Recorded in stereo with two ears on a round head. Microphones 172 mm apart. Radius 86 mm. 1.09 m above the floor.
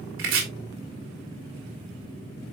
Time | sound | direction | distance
0.2 | chopping | 75° right (ahead or behind) | 3 m